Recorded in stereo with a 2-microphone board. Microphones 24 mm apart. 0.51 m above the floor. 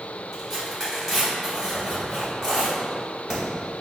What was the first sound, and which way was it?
Tearing paper, 20° right (ahead or behind).